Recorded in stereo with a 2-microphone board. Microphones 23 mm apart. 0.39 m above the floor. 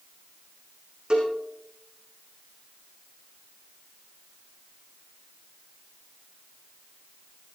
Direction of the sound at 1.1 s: 35° right (ahead or behind).